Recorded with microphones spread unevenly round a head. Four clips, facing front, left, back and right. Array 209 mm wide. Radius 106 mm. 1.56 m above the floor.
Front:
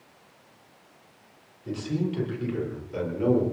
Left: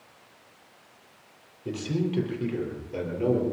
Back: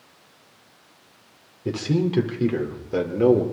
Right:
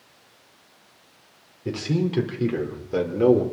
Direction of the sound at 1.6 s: 165° right.